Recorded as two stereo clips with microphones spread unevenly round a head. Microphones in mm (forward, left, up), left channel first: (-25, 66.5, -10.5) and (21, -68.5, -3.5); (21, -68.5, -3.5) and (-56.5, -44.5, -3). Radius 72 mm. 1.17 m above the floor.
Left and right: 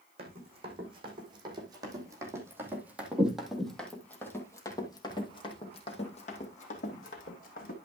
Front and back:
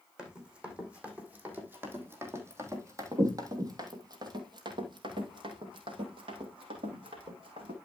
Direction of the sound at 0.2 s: 120° right.